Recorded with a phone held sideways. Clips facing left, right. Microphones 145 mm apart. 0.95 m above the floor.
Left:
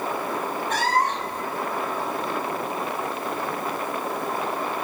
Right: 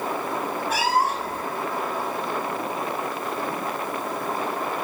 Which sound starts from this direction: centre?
A cat meowing, at 0.7 s.